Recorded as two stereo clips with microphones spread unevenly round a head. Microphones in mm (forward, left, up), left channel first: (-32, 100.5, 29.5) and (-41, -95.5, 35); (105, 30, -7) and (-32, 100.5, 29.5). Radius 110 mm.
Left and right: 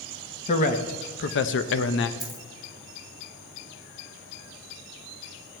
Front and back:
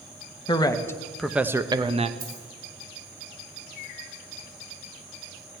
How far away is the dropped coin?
About 3 m.